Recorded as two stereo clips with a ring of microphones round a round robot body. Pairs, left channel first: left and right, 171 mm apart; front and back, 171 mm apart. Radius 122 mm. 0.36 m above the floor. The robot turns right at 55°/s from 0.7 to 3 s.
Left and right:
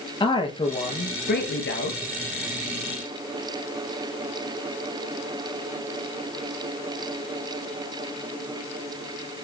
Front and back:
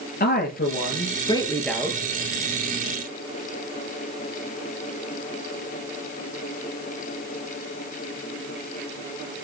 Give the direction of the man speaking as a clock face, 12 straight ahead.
11 o'clock.